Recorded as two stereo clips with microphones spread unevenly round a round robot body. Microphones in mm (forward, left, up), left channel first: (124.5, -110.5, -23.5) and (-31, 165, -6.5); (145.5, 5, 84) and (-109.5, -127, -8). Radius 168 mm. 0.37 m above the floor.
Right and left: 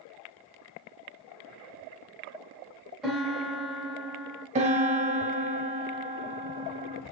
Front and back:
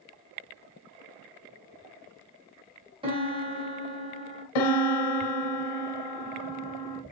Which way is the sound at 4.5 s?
50° left.